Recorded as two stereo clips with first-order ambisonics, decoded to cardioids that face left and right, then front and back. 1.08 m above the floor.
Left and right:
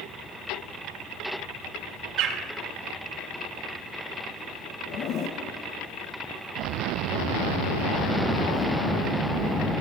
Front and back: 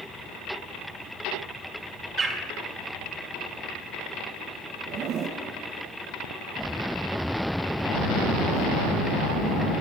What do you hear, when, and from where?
2.2 s a bird: 115° right, 1.8 m
4.9 s a zipper: 135° left, 0.9 m